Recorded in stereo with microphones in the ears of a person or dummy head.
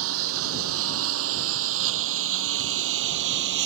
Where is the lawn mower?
85° right; by 3.7 s 65° right (ahead or behind).